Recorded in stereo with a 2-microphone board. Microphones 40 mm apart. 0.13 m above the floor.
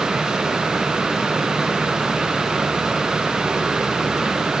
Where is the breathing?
No breathing in this recording.